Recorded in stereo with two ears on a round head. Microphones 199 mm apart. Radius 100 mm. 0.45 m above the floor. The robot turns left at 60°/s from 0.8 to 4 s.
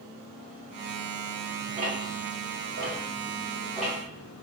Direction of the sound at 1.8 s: 35° right (ahead or behind).